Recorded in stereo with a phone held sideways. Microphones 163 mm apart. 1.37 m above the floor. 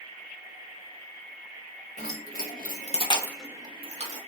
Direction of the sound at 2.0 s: 70° left (ahead or behind).